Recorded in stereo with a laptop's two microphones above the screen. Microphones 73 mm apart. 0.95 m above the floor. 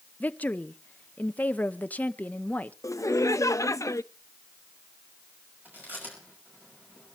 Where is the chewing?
25° right (ahead or behind), 6 m.